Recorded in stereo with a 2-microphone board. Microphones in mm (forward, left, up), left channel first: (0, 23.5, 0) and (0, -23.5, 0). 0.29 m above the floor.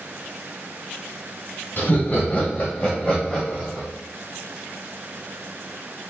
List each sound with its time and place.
1.8 s laughter: 40° left (ahead or behind), 1.3 m; by 3.9 s 10° right (ahead or behind), 1.6 m